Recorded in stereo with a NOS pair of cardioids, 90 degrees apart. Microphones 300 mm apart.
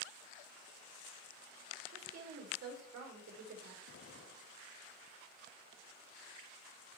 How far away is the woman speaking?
About 5 m.